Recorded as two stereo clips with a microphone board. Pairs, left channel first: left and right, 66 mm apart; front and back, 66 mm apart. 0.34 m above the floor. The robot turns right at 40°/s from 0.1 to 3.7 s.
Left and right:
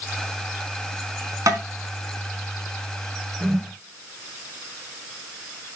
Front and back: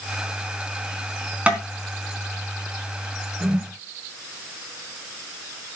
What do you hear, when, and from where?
1.5 s tapping: 110° right, 3.5 m; by 1.6 s 105° right, 3.5 m
3.4 s a whoosh: 135° right, 1.5 m; by 3.7 s 125° right, 1.5 m